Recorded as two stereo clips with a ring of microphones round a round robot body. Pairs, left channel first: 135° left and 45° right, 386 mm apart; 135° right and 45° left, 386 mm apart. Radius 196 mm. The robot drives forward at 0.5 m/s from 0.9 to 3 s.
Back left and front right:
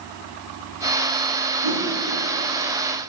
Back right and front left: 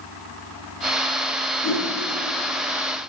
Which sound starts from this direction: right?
A whoosh, at 1.6 s.